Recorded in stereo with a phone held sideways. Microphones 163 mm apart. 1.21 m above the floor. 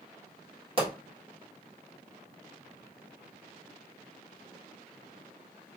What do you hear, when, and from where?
0.8 s a pop: 35° right (ahead or behind), 1.7 m